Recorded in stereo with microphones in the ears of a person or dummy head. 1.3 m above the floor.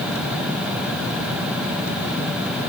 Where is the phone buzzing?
I don't hear a phone buzzing.